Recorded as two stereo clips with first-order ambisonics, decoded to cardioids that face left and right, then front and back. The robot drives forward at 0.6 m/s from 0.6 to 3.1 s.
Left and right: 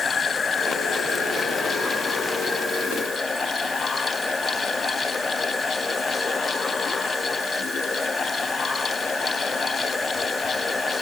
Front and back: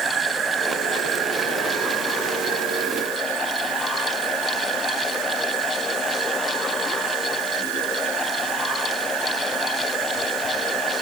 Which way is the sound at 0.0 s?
145° left.